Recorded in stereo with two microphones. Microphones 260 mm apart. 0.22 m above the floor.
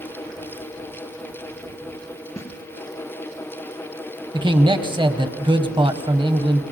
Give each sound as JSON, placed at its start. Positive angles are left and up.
{"t": 2.4, "sound": "a snare drum", "side_deg": 10, "distance_m": 2.5}
{"t": 4.3, "sound": "a man speaking", "side_deg": -20, "distance_m": 1.1}